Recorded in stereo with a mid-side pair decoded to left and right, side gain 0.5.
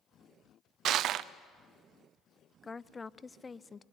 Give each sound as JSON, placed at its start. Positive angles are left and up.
{"t": 0.8, "sound": "crushing", "azimuth_deg": -65, "distance_m": 0.7}
{"t": 2.6, "sound": "a woman speaking", "azimuth_deg": 20, "distance_m": 0.5}